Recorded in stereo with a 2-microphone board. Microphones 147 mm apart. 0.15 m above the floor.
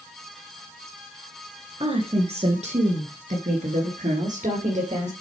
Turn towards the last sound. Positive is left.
turn(degrees=-50)  # may be behind; listen again after turning